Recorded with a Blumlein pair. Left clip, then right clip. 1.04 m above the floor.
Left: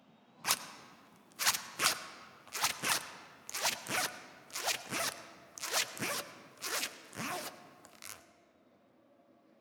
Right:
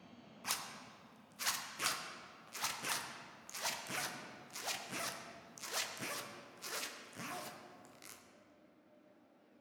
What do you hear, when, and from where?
0.4 s a zipper: 65° left, 0.5 m